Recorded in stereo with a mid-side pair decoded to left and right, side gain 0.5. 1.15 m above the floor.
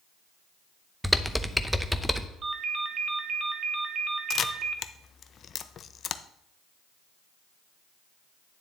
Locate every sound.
1.0 s typing on a keyboard: straight ahead, 0.7 m
2.4 s a ringtone: 45° right, 1.1 m
4.3 s a camera shutter: 50° left, 0.6 m